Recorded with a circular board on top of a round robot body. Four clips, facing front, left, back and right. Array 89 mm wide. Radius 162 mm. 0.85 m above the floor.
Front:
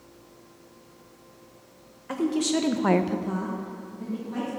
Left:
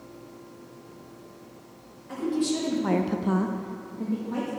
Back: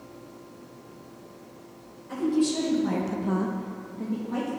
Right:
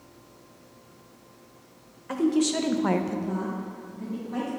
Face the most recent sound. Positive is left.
turn(degrees=125)